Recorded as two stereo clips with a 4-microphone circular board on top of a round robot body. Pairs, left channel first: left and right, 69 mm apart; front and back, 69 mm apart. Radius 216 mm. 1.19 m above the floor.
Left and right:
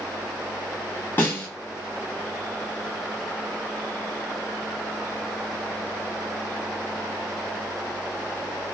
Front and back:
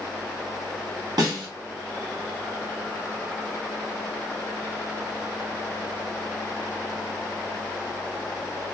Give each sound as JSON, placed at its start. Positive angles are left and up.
{"t": 1.2, "sound": "a snare drum", "azimuth_deg": 150, "distance_m": 0.9}